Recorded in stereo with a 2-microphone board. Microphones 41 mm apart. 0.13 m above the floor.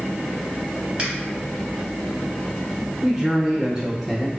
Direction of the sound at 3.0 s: 15° right (ahead or behind).